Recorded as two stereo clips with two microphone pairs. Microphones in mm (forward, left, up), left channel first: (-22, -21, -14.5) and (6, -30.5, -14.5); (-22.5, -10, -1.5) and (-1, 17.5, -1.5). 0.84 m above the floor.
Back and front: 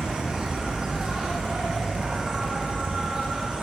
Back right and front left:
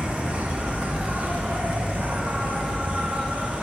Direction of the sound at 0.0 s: 25° left.